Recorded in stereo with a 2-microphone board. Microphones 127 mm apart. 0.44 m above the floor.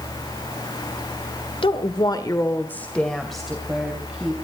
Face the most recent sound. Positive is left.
turn(degrees=-10)  # may be behind; listen again after turning